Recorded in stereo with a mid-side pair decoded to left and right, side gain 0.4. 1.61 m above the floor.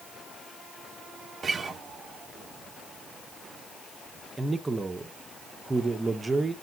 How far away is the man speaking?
About 1.4 m.